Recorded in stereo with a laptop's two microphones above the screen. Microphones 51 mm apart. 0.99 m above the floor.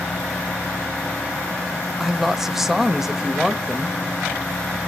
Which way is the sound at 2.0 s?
5° right (ahead or behind).